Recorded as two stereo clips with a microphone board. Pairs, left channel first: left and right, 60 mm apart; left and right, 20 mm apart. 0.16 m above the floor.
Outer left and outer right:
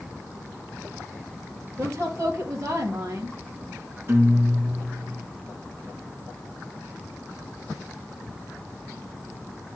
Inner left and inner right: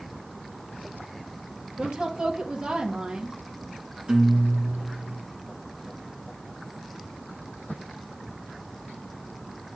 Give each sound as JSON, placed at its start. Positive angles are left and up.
{"t": 1.8, "sound": "a woman speaking", "side_deg": -50, "distance_m": 2.5}
{"t": 4.1, "sound": "a guitar", "side_deg": -45, "distance_m": 2.5}